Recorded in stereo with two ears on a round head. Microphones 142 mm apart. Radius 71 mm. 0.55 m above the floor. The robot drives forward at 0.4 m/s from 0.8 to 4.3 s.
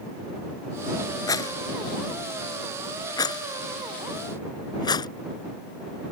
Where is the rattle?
20° left (ahead or behind); by 5.1 s 25° left (ahead or behind).